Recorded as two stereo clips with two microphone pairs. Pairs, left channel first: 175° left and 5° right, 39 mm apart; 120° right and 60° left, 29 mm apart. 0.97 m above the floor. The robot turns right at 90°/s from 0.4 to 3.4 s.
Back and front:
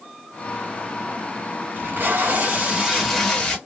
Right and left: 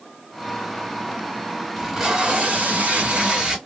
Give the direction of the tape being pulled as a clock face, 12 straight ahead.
1 o'clock.